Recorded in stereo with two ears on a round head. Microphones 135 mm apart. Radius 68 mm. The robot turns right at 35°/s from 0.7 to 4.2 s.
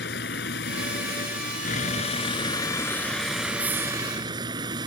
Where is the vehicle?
85° left; by 4.9 s 150° right.